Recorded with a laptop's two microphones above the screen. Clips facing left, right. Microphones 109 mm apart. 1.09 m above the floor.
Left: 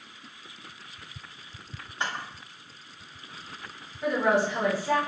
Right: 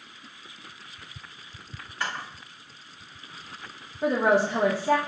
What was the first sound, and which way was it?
A camera shutter, 20° left (ahead or behind).